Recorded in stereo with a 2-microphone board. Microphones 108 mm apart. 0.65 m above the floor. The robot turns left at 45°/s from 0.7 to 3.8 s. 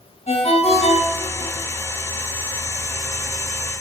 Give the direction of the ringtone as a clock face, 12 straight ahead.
9 o'clock.